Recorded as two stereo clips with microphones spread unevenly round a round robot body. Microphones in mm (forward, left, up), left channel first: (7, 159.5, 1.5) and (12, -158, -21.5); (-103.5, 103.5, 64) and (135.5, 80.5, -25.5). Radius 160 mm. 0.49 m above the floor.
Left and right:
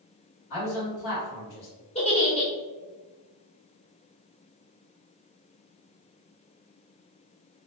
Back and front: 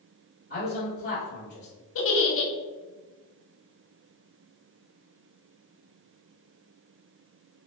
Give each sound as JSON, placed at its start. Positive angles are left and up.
{"t": 0.5, "sound": "a man speaking", "azimuth_deg": 115, "distance_m": 1.8}
{"t": 1.9, "sound": "a giggle", "azimuth_deg": 155, "distance_m": 1.0}